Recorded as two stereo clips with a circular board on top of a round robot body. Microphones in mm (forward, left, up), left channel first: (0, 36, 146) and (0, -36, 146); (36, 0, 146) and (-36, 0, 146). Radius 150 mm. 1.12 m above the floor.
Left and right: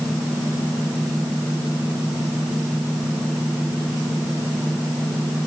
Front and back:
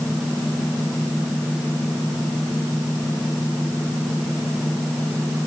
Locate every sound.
Only background noise.